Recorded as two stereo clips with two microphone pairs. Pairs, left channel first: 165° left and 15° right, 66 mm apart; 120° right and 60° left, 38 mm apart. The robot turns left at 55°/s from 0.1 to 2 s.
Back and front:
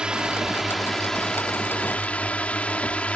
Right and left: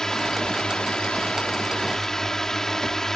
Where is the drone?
70° right; by 3.2 s 170° right.